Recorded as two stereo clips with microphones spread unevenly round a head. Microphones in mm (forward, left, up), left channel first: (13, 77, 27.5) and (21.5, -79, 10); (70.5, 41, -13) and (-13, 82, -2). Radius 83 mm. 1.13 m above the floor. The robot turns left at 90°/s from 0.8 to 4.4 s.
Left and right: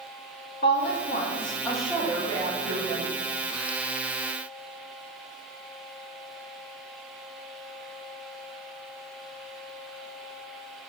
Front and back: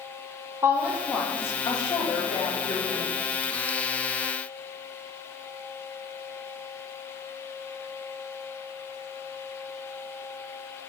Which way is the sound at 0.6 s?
90° left.